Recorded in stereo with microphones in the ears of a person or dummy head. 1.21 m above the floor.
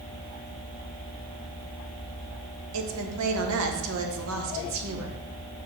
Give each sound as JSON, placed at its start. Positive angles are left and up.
{"t": 2.7, "sound": "a woman speaking", "side_deg": -75, "distance_m": 1.3}